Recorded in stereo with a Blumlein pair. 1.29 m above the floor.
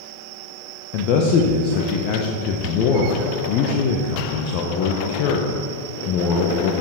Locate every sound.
0.9 s a man speaking: 40° left, 0.8 m